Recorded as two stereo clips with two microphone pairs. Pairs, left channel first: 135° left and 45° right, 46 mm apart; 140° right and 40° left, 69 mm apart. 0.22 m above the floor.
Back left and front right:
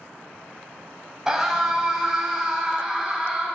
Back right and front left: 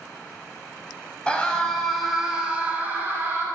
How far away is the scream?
About 1.5 m.